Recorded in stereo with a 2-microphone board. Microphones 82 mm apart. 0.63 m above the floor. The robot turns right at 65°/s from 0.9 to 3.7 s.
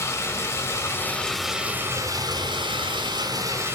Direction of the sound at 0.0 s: 145° left.